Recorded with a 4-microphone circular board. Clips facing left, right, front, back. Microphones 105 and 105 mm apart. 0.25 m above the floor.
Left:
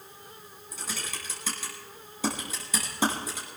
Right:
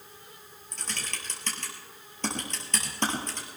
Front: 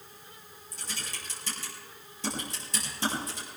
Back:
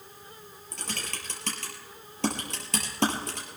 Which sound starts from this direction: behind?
Typing on a keyboard, at 0.7 s.